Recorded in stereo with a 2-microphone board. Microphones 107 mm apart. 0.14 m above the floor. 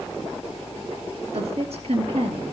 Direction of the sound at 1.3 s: 60° right (ahead or behind).